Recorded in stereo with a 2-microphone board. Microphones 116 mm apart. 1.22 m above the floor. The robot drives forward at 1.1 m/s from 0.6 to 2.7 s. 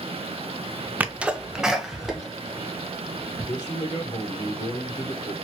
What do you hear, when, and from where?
1.0 s a sneeze: 15° right (ahead or behind), 0.6 m; by 3.4 s 5° right (ahead or behind), 2 m
3.5 s a man speaking: 35° left (ahead or behind), 1.2 m